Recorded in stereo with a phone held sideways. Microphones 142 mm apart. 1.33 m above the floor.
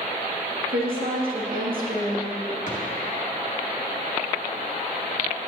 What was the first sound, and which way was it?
A woman speaking, 75° right (ahead or behind).